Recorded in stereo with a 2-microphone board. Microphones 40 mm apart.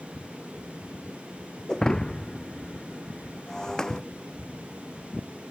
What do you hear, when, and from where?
1.7 s breaking glass: 15° left (ahead or behind)